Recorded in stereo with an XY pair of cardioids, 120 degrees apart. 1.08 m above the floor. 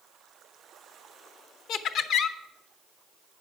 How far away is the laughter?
About 0.8 m.